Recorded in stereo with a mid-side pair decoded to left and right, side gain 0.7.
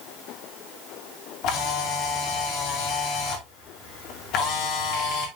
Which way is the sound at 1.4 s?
60° left.